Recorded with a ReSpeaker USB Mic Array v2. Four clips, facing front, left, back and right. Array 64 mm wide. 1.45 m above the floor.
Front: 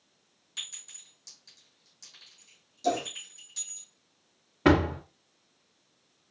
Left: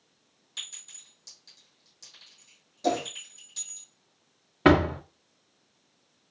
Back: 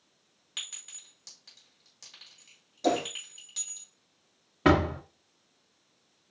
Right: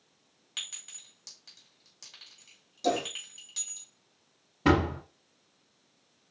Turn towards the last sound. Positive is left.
turn(degrees=95)